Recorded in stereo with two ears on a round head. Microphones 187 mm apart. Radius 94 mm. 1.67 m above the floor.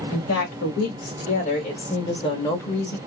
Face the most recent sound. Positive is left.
turn(degrees=5)  # may be behind; listen again after turning